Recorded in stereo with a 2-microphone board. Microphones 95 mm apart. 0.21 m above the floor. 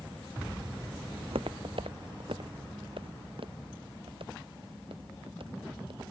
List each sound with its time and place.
1.2 s footsteps: 75° right (ahead or behind); by 6.0 s 65° right (ahead or behind)